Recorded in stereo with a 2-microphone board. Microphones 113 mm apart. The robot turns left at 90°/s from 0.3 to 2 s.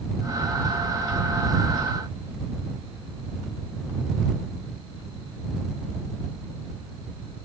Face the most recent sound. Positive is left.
No sound to turn to.